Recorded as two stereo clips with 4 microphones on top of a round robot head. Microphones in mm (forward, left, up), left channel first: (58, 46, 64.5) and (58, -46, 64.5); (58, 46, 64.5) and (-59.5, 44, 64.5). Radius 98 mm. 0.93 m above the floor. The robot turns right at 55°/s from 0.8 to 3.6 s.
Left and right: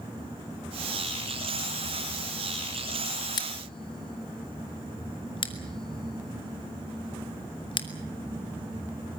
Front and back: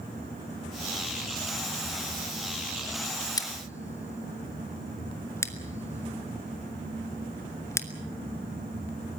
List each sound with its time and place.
3.4 s scissors: 55° left, 2 m; by 7.9 s 65° left, 2 m